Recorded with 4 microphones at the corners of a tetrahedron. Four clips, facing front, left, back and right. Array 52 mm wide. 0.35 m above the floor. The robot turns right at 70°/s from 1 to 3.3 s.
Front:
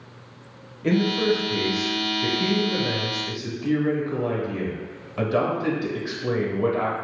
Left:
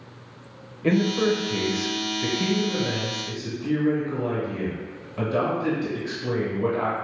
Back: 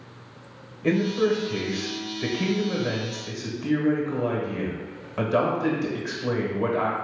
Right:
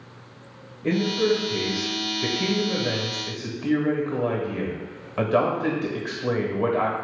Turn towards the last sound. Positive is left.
turn(degrees=-110)